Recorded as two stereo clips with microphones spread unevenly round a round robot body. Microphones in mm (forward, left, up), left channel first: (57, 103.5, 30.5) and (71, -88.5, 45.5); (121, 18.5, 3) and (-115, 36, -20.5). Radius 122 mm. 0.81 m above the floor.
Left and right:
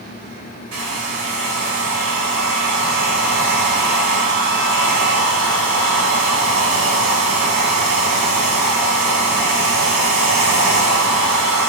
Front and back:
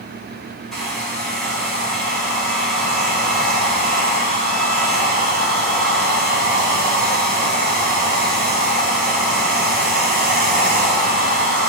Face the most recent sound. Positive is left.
turn(degrees=-90)